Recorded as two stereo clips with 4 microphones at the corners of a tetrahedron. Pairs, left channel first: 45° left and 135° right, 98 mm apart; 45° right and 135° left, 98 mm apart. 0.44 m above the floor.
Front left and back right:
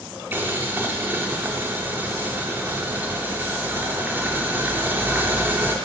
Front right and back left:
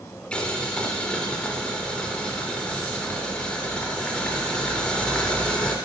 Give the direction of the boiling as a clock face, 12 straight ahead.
4 o'clock.